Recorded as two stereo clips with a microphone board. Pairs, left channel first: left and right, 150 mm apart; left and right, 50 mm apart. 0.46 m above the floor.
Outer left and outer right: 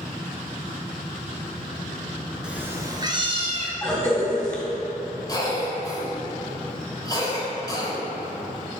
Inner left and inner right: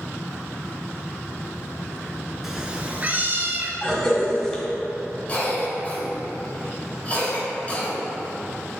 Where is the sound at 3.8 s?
20° left (ahead or behind), 1.8 m.